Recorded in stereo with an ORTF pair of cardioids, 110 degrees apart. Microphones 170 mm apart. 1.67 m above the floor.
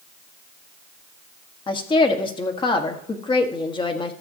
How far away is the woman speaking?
About 1.4 m.